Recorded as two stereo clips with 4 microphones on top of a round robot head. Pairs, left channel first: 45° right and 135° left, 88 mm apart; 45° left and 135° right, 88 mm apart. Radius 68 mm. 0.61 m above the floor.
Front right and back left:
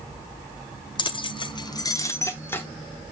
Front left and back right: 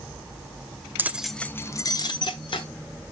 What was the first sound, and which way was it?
Keys jangling, 70° right.